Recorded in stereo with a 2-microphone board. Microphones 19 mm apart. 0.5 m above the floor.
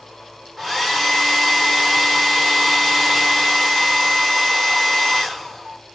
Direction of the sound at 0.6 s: 10° right (ahead or behind).